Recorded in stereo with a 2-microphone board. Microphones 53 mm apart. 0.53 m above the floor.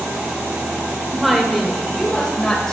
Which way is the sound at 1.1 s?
5° right (ahead or behind).